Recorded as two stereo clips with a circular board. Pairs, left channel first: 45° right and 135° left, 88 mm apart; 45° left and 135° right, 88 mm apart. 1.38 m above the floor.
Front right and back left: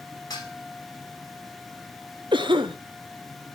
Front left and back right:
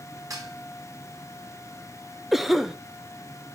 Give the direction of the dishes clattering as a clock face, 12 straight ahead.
3 o'clock.